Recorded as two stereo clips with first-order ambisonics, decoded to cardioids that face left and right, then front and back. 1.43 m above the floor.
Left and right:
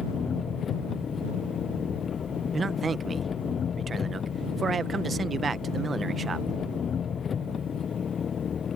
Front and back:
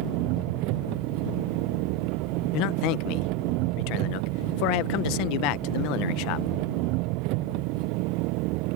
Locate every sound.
0.0 s an engine running: 155° left
2.5 s a man speaking: 15° right